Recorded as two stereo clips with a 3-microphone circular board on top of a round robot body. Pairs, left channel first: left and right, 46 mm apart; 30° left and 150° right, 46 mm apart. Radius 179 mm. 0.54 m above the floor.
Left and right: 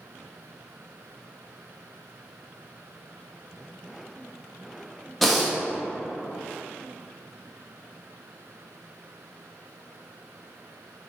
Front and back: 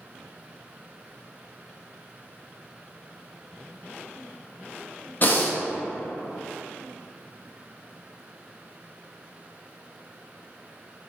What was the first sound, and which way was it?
Breathing, straight ahead.